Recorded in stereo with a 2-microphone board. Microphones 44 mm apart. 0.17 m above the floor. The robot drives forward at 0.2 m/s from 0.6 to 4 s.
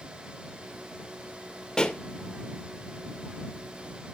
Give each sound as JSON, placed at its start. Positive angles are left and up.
{"t": 1.8, "sound": "a pop", "side_deg": 15, "distance_m": 0.7}